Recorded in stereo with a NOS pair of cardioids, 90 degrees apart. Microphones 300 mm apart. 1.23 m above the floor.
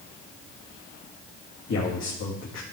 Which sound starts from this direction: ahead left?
A man speaking, at 1.7 s.